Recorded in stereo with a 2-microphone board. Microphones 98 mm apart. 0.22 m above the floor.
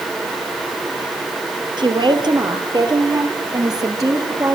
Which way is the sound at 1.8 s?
55° right (ahead or behind).